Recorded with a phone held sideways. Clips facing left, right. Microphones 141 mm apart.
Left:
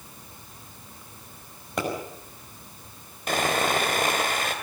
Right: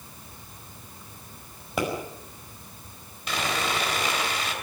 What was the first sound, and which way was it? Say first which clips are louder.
A pop: right 1 dB; 5° right (ahead or behind).